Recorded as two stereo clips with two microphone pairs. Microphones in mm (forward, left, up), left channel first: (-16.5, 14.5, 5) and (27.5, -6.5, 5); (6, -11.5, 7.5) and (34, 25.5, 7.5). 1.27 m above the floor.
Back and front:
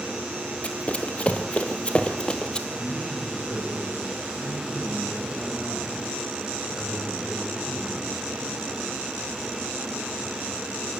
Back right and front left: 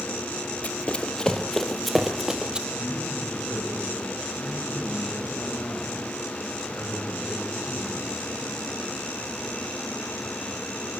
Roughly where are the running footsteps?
Behind.